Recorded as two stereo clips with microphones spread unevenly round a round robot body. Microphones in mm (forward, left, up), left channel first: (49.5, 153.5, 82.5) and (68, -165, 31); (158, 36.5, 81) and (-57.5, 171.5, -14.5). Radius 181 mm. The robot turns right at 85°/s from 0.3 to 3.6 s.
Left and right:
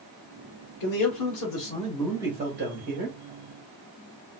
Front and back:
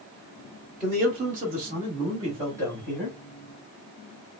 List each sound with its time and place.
0.8 s a man speaking: 80° left, 1.5 m; by 3.2 s 80° right, 1.5 m